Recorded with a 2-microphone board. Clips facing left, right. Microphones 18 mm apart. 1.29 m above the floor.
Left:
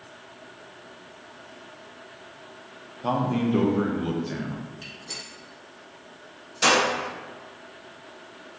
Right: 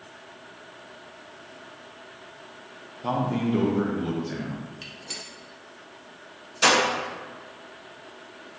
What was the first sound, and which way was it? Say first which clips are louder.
A man speaking: left 1 dB; 10° left (ahead or behind).